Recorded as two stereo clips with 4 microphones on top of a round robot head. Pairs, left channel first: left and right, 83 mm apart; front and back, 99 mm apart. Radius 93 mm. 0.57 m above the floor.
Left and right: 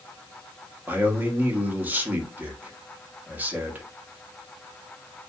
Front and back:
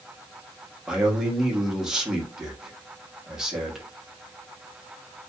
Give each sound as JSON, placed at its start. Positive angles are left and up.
{"t": 0.9, "sound": "a man speaking", "azimuth_deg": -110, "distance_m": 0.8}